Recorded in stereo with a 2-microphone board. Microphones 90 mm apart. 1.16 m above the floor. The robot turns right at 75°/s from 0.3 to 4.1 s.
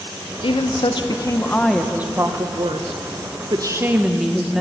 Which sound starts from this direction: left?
A woman speaking, at 0.4 s.